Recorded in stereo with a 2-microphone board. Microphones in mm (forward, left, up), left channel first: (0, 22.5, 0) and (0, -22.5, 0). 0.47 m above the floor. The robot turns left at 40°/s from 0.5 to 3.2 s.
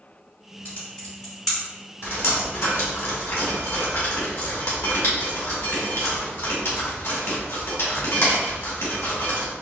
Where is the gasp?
No gasp in this recording.